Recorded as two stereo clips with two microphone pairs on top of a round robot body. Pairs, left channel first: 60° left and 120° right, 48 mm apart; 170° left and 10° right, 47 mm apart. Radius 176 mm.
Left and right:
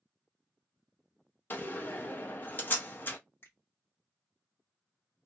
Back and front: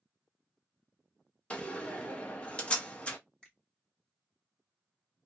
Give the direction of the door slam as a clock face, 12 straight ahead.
9 o'clock.